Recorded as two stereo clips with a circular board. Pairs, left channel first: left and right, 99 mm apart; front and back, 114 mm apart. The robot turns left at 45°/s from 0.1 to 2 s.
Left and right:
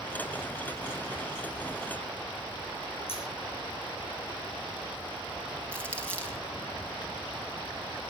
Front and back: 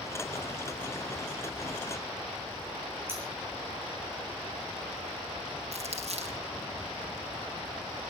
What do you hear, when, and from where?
3.1 s scissors: 110° left, 8 m
5.7 s crumpling: 165° left, 4.5 m